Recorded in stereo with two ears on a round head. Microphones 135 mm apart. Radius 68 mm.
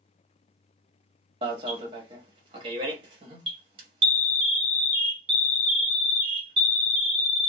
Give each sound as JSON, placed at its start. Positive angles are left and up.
{"t": 1.4, "sound": "an alarm", "side_deg": -35, "distance_m": 1.2}